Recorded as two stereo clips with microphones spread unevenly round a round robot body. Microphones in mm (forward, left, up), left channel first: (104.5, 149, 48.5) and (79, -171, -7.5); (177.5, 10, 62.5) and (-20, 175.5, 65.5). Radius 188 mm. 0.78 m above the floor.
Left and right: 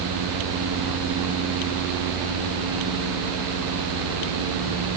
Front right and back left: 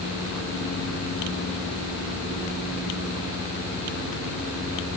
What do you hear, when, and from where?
Only background noise.